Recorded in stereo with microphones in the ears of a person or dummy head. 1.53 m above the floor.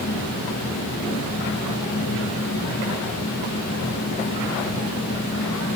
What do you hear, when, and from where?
0.0 s a fan: 75° left (ahead or behind), 1.7 m